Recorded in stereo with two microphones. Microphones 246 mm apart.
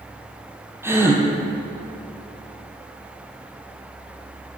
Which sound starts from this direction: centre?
A gasp, at 0.8 s.